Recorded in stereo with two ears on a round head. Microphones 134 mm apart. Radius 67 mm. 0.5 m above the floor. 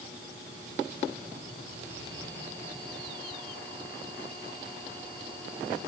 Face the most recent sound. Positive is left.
No sound to turn to.